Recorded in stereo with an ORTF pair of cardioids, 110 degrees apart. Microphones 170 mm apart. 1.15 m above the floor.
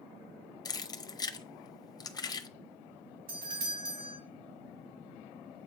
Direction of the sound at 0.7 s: 25° left.